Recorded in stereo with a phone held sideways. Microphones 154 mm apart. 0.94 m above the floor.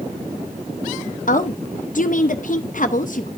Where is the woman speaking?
60° left (ahead or behind), 0.6 m.